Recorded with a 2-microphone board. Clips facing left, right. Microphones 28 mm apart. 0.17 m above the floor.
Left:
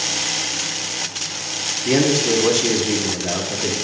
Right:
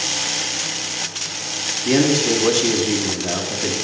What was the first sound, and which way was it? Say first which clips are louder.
A man speaking: even; centre (ahead or behind).